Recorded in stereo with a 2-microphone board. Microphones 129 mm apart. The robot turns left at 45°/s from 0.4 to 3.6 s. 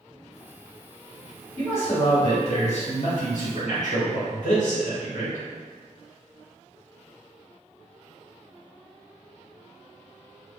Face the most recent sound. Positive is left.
turn(degrees=75)